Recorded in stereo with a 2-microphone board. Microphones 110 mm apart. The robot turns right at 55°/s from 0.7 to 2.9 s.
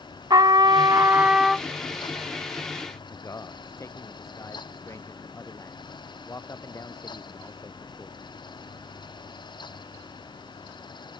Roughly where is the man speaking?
Left.